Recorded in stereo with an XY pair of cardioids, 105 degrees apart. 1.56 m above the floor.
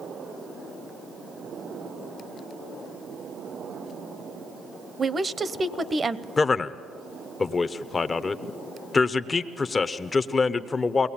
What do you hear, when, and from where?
5.0 s a woman speaking: 30° right, 0.9 m
6.4 s a man speaking: 30° left, 0.9 m